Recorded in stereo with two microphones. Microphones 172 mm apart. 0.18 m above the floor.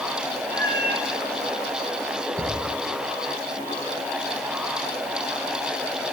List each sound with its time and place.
0.5 s a cat meowing: 70° right (ahead or behind), 3 m
2.4 s a cupboard door: 5° right (ahead or behind), 8 m